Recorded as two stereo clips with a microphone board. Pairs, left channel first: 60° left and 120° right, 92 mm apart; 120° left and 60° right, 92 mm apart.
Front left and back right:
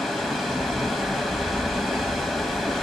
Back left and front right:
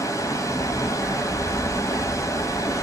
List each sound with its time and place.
0.0 s running water: 145° left, 0.8 m